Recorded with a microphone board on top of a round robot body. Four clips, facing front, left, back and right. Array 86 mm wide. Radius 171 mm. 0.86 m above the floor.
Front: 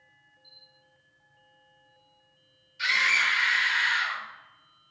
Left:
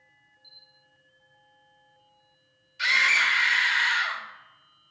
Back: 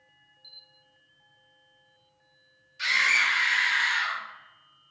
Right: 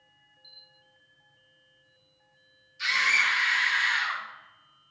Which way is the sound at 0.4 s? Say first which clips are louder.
Right 1 dB, even; 175° right.